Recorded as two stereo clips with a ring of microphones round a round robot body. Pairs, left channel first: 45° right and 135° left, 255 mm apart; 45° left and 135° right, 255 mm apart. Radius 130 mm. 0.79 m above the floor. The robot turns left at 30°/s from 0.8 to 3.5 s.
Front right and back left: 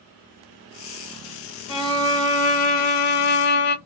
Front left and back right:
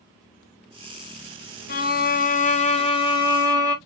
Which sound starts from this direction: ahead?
A violin, at 1.7 s.